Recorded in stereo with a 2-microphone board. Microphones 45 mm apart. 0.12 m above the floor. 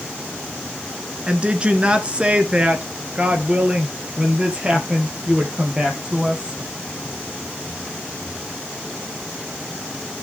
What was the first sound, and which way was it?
A woman speaking, 25° right (ahead or behind).